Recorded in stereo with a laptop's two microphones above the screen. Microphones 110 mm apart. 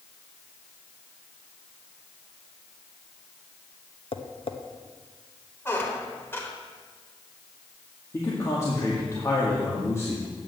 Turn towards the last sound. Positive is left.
turn(degrees=30)  # may be behind; listen again after turning